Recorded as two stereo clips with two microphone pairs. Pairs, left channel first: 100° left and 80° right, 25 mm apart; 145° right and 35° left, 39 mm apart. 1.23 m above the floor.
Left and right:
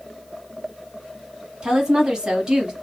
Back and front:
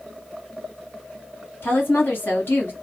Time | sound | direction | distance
1.6 | a woman speaking | 135° right | 1.5 m